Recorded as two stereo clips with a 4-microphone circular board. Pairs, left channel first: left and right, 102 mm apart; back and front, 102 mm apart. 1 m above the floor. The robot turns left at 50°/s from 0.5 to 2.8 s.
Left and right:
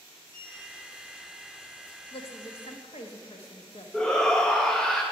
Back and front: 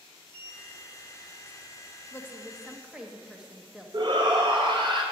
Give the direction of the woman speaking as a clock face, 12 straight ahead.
8 o'clock.